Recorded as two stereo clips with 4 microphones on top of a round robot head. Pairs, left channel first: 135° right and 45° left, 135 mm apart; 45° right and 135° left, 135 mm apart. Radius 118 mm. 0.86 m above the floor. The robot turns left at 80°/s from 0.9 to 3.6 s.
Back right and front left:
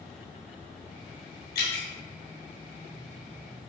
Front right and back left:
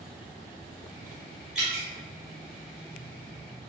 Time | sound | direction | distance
1.6 | dripping | 140° right | 1.1 m